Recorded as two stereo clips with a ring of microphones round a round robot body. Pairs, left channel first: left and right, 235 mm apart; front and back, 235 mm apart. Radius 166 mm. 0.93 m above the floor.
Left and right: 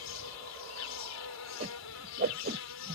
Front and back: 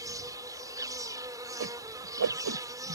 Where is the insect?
105° left.